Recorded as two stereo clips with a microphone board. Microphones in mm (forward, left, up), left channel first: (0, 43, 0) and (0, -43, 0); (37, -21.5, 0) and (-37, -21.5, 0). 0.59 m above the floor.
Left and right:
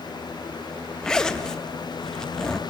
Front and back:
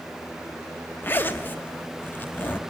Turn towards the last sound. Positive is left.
turn(degrees=20)